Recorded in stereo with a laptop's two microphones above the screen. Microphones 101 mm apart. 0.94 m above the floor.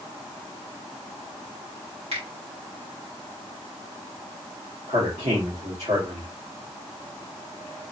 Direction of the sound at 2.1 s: 85° right.